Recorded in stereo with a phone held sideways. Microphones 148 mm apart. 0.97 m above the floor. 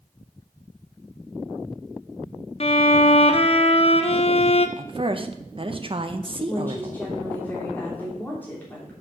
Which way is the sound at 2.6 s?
40° left (ahead or behind).